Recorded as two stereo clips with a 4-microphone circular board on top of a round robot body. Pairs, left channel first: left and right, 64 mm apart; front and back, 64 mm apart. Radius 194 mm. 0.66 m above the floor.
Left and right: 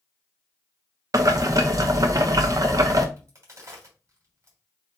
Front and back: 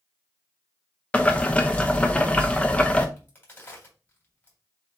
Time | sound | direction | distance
1.1 | boiling | 70° right | 0.9 m
3.2 | a crack | 55° right | 3.5 m